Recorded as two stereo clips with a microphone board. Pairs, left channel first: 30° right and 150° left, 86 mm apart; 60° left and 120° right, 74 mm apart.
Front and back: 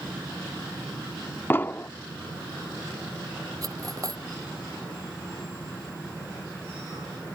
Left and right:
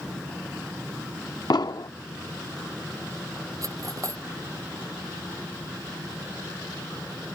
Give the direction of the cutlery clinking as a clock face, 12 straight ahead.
5 o'clock.